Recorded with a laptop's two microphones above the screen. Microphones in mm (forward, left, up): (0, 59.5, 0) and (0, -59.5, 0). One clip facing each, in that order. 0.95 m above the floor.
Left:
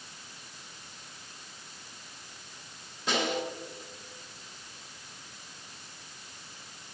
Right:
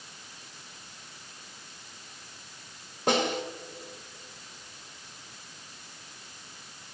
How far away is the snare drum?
About 2.5 m.